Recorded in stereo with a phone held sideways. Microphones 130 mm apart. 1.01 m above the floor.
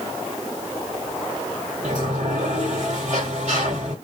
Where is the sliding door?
60° right (ahead or behind), 1.3 m.